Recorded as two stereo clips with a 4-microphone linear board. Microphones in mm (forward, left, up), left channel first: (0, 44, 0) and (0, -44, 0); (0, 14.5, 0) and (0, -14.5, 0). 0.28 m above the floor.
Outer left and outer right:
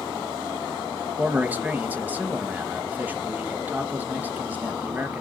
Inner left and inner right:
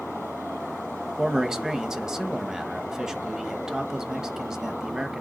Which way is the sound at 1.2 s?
20° right (ahead or behind).